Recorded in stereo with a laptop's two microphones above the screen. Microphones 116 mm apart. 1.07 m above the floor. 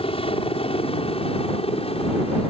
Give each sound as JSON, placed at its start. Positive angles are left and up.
{"t": 0.0, "sound": "a helicopter", "side_deg": 55}